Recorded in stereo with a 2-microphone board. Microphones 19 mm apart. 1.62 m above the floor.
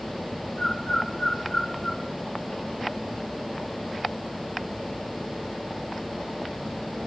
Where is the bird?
25° left (ahead or behind), 8.5 m.